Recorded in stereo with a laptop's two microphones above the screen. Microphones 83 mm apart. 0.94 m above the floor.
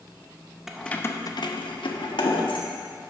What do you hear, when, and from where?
0.7 s keys jangling: 5° right (ahead or behind), 0.5 m; by 2.7 s 85° left, 1.5 m